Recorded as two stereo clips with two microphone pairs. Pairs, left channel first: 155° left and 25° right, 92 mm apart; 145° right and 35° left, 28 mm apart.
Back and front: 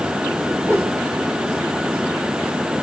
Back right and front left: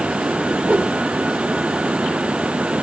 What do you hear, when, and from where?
0.6 s a whoosh: 35° left, 6.5 m